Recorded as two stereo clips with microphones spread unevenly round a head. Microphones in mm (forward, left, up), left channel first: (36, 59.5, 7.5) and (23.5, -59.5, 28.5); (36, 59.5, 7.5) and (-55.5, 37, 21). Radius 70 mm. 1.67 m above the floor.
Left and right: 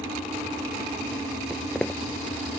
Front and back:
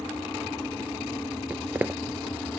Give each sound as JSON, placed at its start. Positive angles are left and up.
{"t": 1.5, "sound": "footsteps", "azimuth_deg": -175}